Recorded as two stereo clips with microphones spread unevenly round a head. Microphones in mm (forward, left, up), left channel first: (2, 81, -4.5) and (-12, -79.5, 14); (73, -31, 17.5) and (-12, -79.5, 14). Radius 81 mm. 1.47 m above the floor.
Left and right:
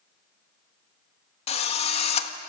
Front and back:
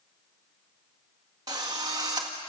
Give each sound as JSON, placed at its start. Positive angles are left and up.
{"t": 1.5, "sound": "a drill", "azimuth_deg": 140, "distance_m": 1.5}